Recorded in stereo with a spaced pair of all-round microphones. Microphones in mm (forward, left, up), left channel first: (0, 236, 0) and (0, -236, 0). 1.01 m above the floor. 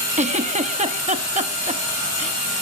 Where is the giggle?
15° right (ahead or behind), 0.9 m.